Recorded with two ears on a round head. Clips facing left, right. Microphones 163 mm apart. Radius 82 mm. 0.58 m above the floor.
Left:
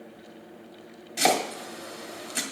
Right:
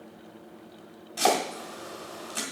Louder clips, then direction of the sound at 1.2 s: Even; 20° left (ahead or behind).